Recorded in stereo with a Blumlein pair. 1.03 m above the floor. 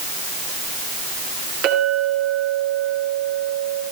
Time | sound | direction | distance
1.6 | a clink | 40° right | 9.5 m